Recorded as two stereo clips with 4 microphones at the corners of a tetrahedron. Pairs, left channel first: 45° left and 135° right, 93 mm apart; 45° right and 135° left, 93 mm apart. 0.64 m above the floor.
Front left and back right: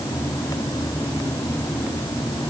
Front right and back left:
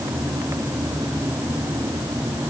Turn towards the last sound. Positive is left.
No sound to turn to.